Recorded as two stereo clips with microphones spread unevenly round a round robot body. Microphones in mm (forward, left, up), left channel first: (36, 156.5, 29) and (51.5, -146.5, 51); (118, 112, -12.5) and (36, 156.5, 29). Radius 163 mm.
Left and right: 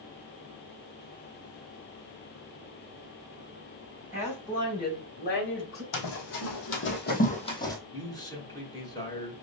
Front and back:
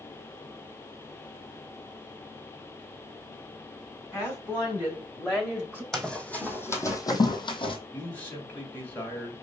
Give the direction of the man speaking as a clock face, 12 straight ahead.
11 o'clock.